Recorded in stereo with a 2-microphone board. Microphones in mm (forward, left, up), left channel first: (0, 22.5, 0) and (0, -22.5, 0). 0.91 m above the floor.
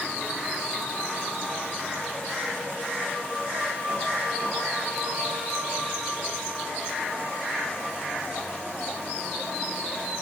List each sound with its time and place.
Only background noise.